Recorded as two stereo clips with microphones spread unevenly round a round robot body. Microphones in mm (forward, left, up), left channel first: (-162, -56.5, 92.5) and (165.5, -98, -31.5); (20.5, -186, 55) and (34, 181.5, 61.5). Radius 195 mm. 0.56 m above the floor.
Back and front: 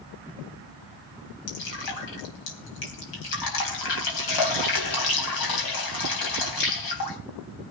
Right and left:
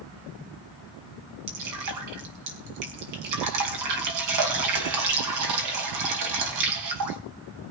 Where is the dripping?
130° left, 4.5 m.